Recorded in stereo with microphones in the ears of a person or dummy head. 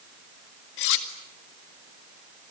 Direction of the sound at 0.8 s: 60° left (ahead or behind).